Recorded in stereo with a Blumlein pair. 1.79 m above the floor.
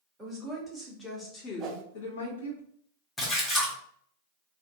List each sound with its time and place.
0.2 s a woman speaking: 20° right, 1.6 m; by 2.6 s 75° left, 1.3 m
1.6 s a whoosh: 25° right, 0.7 m
3.2 s a splash: 10° left, 1.1 m